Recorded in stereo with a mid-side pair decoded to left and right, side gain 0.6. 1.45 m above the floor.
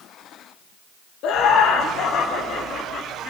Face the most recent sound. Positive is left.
turn(degrees=50)